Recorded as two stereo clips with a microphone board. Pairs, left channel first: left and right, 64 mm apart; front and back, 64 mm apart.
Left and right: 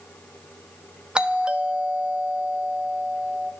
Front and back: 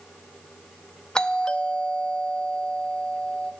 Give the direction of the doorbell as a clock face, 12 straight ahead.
2 o'clock.